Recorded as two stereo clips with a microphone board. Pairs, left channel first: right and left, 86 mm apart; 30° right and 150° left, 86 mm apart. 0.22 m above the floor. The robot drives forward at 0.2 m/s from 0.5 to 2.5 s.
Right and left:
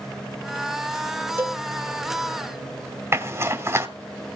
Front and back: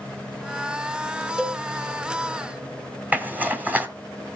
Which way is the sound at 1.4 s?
75° left.